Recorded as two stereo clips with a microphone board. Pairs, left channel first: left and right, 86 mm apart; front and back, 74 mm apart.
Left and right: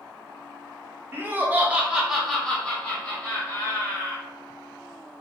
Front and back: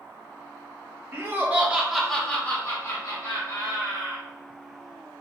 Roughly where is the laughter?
Behind right.